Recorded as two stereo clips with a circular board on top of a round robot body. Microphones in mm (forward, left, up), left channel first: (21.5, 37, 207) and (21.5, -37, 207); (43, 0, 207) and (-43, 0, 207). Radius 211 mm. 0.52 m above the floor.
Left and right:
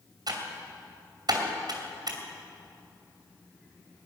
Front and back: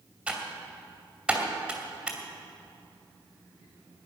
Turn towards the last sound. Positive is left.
turn(degrees=-105)